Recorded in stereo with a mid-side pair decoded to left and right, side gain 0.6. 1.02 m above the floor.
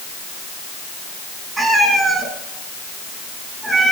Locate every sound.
1.6 s a cat meowing: 15° right, 6 m